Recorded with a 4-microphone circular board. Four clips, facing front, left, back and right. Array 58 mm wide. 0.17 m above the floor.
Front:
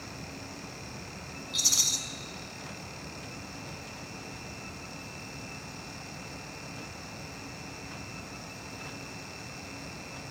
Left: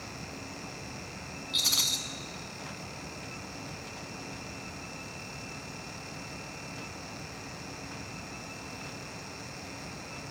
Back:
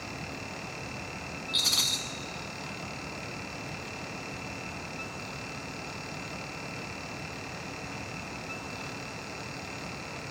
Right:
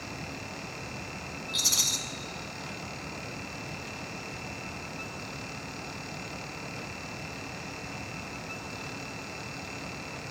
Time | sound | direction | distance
1.5 | a rattle | 165° left | 0.8 m